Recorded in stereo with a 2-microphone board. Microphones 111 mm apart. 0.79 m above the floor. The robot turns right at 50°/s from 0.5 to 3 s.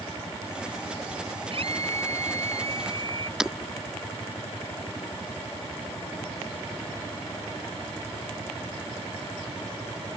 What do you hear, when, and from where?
1.5 s a scream: 125° right; by 3.3 s 50° right
3.4 s breaking glass: 5° right (ahead or behind)